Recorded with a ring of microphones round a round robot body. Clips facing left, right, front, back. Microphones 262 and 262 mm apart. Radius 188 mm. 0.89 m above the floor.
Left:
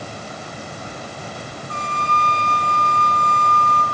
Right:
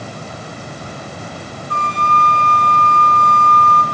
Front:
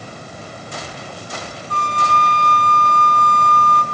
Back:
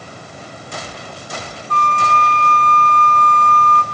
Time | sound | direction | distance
1.7 | a flute | 80° left | 1.7 m